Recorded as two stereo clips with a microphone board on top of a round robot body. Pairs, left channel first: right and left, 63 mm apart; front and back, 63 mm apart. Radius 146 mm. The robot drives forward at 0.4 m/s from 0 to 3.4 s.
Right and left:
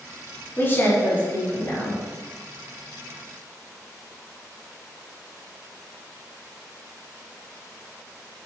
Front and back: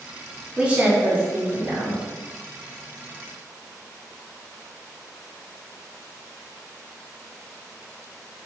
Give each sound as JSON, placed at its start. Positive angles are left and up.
{"t": 0.6, "sound": "a woman speaking", "azimuth_deg": -120, "distance_m": 1.4}